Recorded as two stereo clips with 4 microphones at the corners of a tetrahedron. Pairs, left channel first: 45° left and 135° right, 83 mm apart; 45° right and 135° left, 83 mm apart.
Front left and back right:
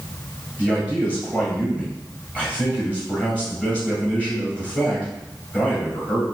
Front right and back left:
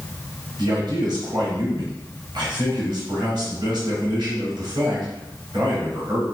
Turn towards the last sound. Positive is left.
turn(degrees=120)